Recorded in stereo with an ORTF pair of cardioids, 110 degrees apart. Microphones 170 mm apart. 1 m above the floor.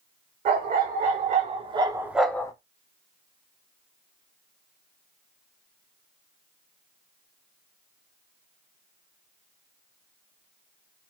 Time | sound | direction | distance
0.5 | a dog barking | 65° right | 1.5 m